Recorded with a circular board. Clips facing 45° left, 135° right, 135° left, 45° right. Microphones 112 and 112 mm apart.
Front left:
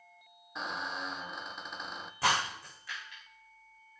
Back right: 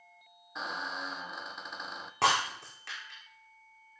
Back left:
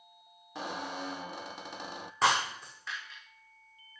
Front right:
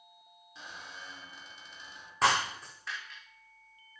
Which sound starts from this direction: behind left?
A squeak, at 0.6 s.